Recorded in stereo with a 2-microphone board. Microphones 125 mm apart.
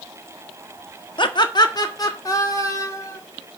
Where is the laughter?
40° left (ahead or behind), 1.2 m; by 3.2 s 25° left (ahead or behind), 3 m.